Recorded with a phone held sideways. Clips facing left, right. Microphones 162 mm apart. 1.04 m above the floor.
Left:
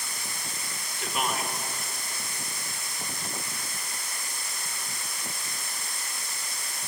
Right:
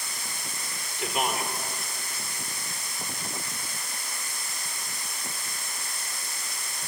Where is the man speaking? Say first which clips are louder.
Right 2 dB; 20° right (ahead or behind), 4 m.